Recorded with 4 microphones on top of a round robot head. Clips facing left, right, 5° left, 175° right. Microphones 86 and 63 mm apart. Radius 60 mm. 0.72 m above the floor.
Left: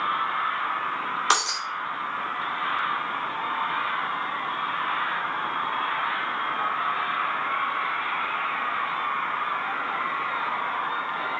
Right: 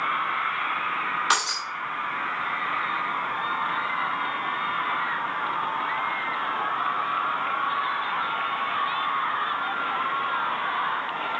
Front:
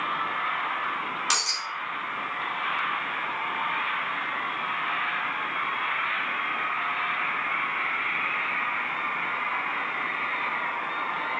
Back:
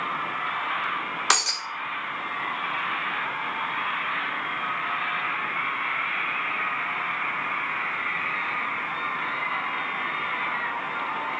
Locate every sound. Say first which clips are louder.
1.3 s breaking glass: left 3 dB, back 4 dB; 155° left, 0.9 m